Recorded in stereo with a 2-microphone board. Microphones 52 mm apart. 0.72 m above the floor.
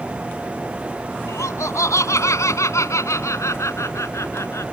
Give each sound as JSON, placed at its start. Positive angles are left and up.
{"t": 1.3, "sound": "laughter", "side_deg": 85}